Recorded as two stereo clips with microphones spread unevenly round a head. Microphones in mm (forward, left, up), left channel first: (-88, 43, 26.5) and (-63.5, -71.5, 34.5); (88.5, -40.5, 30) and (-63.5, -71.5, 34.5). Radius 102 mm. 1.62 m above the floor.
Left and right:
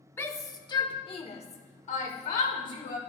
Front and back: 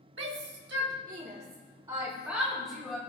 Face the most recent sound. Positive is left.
turn(degrees=100)